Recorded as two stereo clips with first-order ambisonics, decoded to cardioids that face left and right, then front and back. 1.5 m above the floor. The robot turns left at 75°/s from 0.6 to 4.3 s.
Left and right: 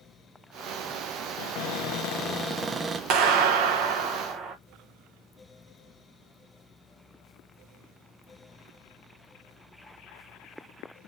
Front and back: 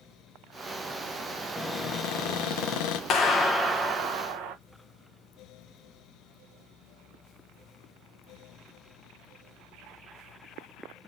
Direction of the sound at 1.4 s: 95° left.